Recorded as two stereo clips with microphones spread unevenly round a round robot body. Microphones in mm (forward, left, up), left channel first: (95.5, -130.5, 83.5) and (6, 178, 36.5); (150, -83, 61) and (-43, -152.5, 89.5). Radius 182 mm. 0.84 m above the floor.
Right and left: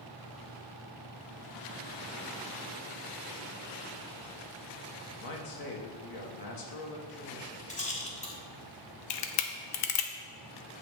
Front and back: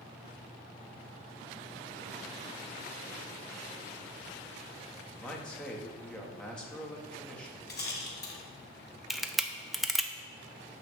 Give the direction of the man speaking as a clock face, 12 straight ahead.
2 o'clock.